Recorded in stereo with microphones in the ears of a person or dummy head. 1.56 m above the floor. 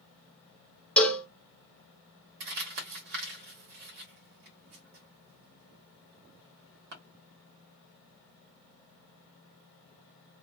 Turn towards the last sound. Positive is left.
turn(degrees=-60)  # may be behind; listen again after turning